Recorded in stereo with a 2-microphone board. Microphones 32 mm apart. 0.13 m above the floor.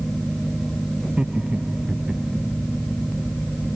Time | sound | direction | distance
1.0 | laughter | 30° right (ahead or behind) | ?